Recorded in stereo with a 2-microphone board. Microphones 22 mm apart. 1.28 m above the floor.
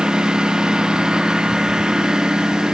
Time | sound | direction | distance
0.0 | a lawn mower | 40° right (ahead or behind) | ?